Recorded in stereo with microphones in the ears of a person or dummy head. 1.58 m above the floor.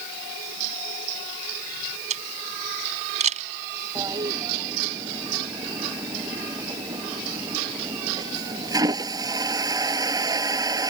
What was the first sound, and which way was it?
A camera shutter, 40° right (ahead or behind).